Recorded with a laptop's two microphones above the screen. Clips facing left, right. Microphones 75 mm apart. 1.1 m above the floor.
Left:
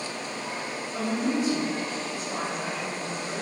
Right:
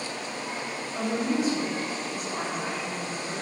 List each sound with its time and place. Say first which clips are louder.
0.9 s a woman speaking: even; 75° left (ahead or behind), 1.4 m